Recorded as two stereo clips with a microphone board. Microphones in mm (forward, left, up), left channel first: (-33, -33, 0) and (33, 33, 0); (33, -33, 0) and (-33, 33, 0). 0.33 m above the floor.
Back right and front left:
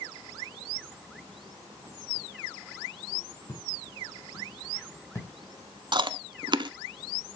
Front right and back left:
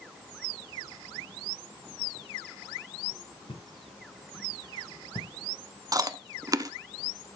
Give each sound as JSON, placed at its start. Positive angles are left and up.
{"t": 3.5, "sound": "footsteps", "azimuth_deg": -80, "distance_m": 5.0}
{"t": 5.9, "sound": "chewing", "azimuth_deg": 85, "distance_m": 0.6}